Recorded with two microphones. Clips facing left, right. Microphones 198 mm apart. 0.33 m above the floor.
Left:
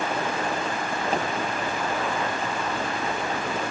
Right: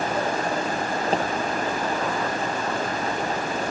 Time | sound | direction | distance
1.1 | a pop | 30° right (ahead or behind) | 6.5 m